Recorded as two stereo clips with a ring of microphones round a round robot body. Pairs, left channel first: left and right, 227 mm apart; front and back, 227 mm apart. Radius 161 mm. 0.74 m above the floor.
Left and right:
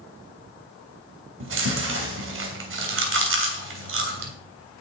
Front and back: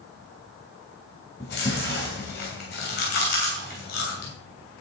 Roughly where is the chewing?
Ahead right.